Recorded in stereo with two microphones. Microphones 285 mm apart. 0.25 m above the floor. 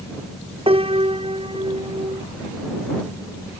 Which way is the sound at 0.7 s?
20° right (ahead or behind).